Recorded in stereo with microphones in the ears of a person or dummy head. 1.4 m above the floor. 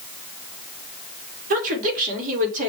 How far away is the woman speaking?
About 1.9 m.